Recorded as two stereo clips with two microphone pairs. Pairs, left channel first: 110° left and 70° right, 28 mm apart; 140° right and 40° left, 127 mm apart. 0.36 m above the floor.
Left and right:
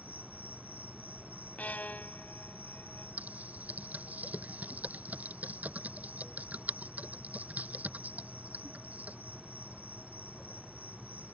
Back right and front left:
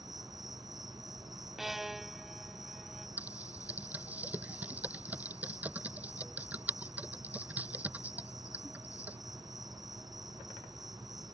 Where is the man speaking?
No man speaking in this recording.